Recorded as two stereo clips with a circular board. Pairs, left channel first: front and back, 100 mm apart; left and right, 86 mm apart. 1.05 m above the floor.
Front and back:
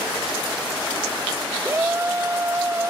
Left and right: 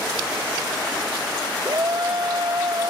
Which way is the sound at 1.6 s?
120° right.